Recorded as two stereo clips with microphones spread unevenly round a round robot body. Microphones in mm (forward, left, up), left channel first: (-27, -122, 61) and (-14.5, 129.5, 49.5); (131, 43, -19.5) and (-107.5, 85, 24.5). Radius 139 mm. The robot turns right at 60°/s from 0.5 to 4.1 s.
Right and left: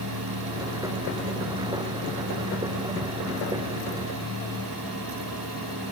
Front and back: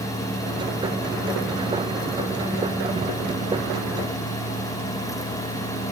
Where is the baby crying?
I don't hear a baby crying.